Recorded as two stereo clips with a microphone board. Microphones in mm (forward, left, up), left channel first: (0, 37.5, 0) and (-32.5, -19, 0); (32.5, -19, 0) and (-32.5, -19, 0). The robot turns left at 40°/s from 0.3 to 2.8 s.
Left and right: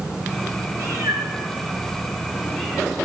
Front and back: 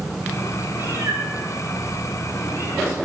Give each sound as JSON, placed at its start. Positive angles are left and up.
{"t": 0.7, "sound": "a cat meowing", "azimuth_deg": -125, "distance_m": 9.0}